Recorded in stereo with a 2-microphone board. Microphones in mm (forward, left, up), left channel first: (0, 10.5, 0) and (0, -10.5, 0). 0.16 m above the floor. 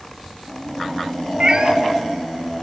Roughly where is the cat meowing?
Right.